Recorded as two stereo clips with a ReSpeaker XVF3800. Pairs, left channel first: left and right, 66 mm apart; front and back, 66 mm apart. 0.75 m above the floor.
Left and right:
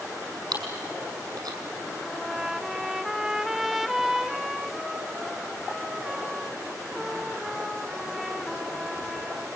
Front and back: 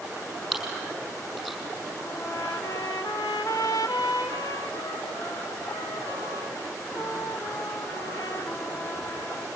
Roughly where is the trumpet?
Ahead.